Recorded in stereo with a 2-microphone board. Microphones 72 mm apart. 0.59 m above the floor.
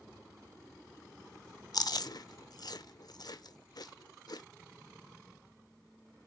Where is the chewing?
65° left (ahead or behind), 0.7 m.